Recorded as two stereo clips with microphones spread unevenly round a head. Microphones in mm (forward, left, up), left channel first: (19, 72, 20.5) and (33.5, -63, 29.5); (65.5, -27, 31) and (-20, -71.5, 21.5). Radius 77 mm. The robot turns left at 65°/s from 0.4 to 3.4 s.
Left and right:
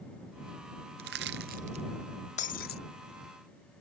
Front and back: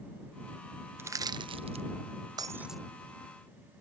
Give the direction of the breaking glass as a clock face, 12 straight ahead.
7 o'clock.